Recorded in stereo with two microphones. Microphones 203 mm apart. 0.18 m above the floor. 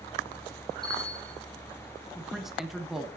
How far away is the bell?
About 5.5 m.